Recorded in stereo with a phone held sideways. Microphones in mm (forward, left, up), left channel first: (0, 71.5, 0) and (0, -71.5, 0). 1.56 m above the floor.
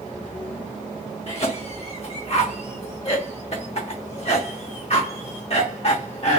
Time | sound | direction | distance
1.3 | a cough | 50° left (ahead or behind) | 0.6 m